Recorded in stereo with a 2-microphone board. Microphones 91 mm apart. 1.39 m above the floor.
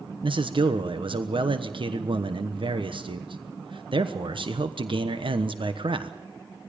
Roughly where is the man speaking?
Right.